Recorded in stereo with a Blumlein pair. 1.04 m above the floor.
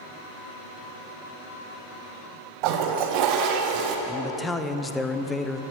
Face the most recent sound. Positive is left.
turn(degrees=10)